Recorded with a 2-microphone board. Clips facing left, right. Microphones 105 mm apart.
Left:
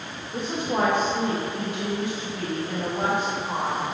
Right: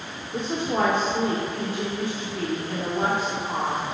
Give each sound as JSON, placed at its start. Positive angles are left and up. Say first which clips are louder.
{"t": 0.3, "sound": "a woman speaking", "louder": "right 1 dB", "side_deg": 20, "distance_m": 1.1}